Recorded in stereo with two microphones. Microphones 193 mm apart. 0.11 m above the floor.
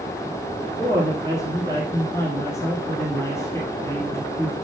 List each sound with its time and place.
0.8 s a woman speaking: 15° left (ahead or behind), 3 m